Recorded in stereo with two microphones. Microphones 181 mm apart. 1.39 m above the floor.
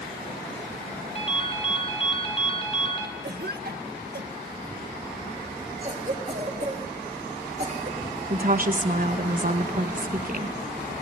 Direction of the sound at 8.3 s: 50° right (ahead or behind).